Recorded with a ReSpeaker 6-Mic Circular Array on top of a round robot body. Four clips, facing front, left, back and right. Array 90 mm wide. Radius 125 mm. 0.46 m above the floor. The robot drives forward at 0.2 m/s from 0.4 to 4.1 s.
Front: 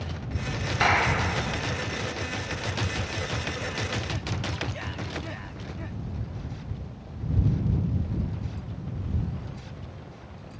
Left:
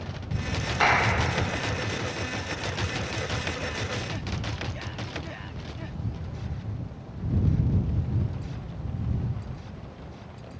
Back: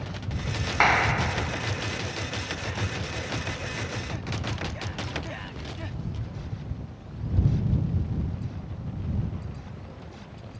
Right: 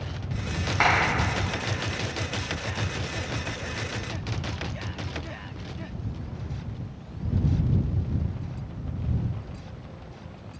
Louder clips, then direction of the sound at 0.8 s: Even, back 2 dB; 155° right.